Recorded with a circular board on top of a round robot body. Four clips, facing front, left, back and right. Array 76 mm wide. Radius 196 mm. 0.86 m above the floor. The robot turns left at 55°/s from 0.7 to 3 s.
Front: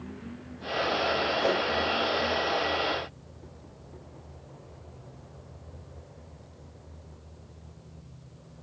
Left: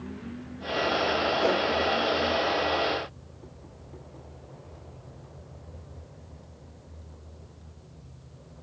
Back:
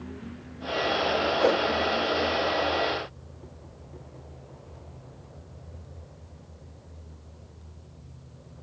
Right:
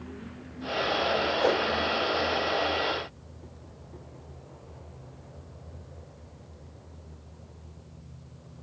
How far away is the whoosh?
About 3.5 m.